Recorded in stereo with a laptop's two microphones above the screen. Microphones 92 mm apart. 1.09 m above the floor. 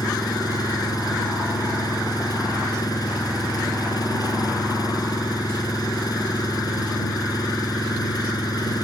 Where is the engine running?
45° left (ahead or behind).